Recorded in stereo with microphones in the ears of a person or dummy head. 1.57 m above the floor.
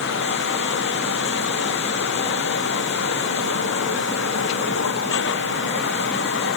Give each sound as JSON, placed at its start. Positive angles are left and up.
{"t": 0.0, "sound": "running water", "side_deg": 65}